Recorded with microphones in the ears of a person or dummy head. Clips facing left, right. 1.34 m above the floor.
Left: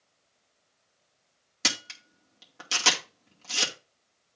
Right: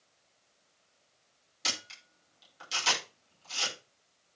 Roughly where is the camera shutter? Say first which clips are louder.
Left 6 dB; left.